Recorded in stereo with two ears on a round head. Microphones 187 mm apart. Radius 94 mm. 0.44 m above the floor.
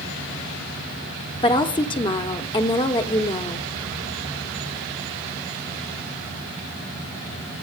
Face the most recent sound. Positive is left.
turn(degrees=25)  # may be behind; listen again after turning